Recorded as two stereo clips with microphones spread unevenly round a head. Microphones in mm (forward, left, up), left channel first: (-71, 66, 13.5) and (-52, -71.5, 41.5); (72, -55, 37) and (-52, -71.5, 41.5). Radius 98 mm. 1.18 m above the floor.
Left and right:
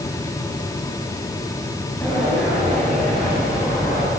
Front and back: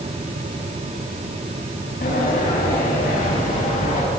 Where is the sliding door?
15° left, 8 m.